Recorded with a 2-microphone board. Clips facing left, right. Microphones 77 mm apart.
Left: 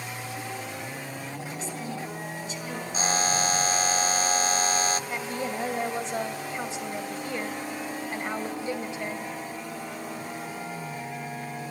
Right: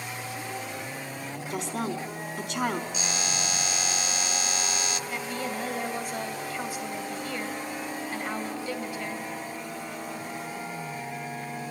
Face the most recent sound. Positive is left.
turn(degrees=20)  # may be behind; listen again after turning